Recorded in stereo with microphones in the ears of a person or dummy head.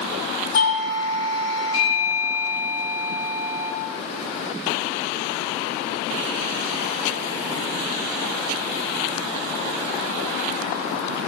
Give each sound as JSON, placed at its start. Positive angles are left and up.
{"t": 0.5, "sound": "a doorbell", "side_deg": 80, "distance_m": 6.0}